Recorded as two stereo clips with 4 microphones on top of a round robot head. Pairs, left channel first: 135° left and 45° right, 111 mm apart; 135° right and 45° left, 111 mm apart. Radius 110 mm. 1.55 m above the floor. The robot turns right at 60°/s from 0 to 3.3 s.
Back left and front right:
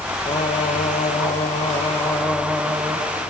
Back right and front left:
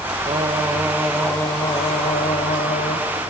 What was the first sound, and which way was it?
Singing, 85° left.